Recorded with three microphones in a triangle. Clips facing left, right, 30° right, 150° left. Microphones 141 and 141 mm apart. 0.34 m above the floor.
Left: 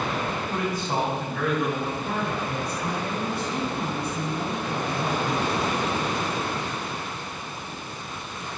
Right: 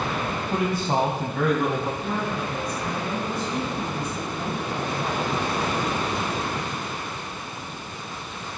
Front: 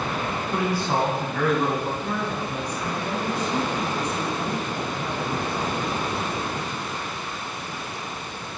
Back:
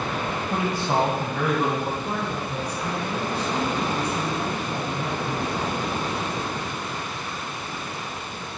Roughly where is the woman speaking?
Left.